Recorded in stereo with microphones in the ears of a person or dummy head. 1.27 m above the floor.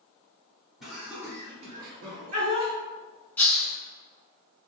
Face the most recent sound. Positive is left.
turn(degrees=5)  # may be behind; listen again after turning